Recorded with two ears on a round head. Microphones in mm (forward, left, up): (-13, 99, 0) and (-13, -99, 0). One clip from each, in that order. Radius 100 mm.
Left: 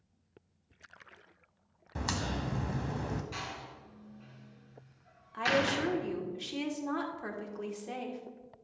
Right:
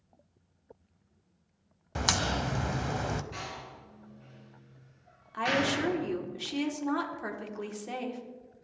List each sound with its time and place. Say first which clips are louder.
1.9 s a crack: right 7 dB; 30° right (ahead or behind), 0.6 m
3.3 s a door slam: right 1 dB; 30° left (ahead or behind), 4.5 m
5.3 s a woman speaking: right 1 dB; 15° right (ahead or behind), 1.4 m